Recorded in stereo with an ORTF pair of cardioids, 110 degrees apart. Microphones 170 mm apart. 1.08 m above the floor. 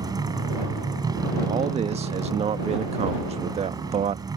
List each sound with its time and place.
0.0 s a motorcycle: 25° right
1.5 s a man speaking: 40° right